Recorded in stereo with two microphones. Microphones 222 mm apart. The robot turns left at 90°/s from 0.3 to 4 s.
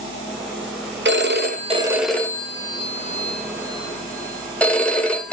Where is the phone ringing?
90° right, 1.0 m; by 5.3 s 5° left, 1.0 m.